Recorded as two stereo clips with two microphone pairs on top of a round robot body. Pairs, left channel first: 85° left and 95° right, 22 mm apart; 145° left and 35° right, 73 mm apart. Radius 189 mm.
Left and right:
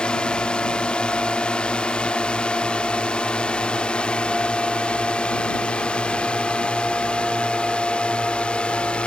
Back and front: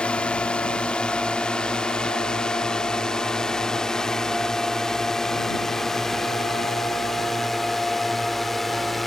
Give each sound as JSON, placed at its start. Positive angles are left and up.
{"t": 0.0, "sound": "a drone", "azimuth_deg": 75}